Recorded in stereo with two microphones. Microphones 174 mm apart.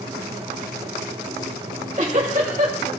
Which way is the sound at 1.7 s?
45° right (ahead or behind).